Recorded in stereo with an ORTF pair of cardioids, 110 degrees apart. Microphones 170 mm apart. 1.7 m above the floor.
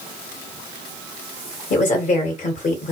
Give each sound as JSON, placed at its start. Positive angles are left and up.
{"t": 1.7, "sound": "a woman speaking", "azimuth_deg": 45, "distance_m": 1.9}